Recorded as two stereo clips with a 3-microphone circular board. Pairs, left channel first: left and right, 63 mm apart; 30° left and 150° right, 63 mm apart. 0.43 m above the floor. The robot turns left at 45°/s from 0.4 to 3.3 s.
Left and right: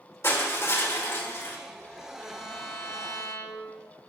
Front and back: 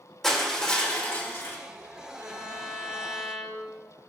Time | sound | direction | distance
0.2 | crushing | 110° left | 1.8 m
2.2 | a violin | 170° right | 1.6 m